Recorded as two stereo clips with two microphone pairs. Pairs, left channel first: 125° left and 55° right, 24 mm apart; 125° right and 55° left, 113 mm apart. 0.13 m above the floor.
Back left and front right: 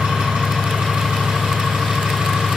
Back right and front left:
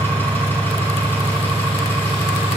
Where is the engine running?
55° right, 4 m.